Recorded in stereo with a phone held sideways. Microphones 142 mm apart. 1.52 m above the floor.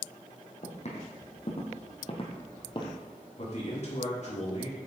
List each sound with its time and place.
0.6 s footsteps: 55° left (ahead or behind), 2.5 m; by 3.0 s 35° left (ahead or behind), 1.8 m
3.4 s a man speaking: 55° left (ahead or behind), 3 m